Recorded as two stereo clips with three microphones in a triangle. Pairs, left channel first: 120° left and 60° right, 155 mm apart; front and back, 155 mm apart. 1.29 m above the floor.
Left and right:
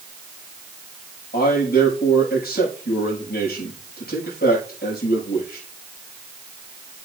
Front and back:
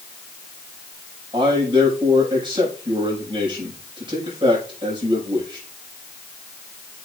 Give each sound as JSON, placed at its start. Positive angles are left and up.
{"t": 1.3, "sound": "a man speaking", "azimuth_deg": 120, "distance_m": 6.0}